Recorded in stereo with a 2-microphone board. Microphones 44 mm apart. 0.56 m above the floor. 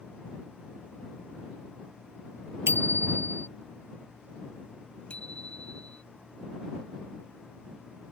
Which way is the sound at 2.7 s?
75° right (ahead or behind).